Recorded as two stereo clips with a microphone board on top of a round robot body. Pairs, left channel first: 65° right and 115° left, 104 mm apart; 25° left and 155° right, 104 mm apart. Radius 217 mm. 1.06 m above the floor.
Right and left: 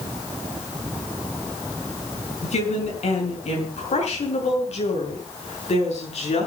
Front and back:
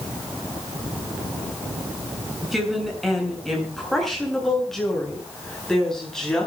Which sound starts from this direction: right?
A woman speaking, at 2.4 s.